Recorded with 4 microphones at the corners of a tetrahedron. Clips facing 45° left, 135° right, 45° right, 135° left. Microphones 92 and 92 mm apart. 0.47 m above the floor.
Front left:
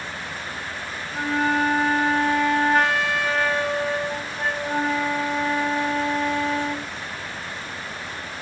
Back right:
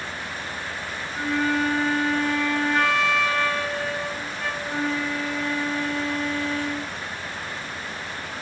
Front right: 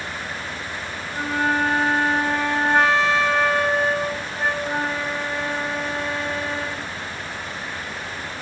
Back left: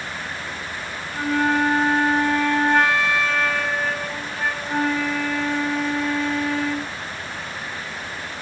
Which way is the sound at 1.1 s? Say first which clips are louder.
Front left 2 dB, back left 2 dB; 15° left.